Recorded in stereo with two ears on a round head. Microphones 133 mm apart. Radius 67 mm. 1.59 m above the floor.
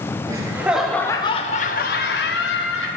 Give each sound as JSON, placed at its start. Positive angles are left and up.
{"t": 0.3, "sound": "laughter", "side_deg": -25, "distance_m": 1.4}